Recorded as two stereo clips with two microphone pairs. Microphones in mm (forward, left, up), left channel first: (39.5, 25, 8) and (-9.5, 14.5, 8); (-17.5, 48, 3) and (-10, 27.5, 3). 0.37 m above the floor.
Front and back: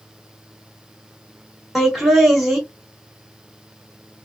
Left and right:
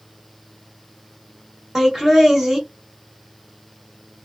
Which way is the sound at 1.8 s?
75° right.